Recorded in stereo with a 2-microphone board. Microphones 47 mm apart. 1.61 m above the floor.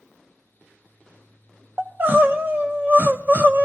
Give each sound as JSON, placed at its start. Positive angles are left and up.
{"t": 1.8, "sound": "crying", "side_deg": -45, "distance_m": 0.8}